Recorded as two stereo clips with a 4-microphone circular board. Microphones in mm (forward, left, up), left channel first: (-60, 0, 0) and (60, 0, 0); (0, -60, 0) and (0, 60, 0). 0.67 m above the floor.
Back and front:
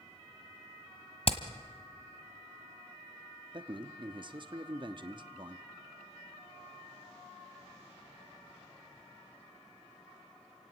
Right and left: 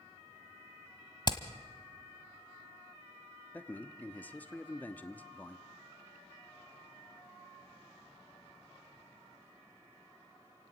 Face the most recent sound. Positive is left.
turn(degrees=-20)